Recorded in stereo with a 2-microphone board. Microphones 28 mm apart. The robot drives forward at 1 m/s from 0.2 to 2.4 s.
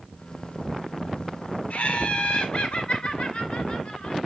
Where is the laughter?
45° left (ahead or behind), 2 m; by 4.2 s 35° left (ahead or behind), 2.5 m.